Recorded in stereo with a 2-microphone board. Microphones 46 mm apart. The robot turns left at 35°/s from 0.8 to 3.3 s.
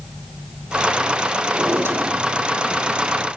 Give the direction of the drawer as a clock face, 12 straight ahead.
3 o'clock.